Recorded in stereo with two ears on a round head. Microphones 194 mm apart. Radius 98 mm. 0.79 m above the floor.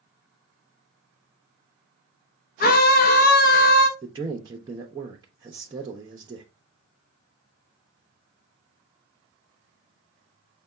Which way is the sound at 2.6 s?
45° left (ahead or behind).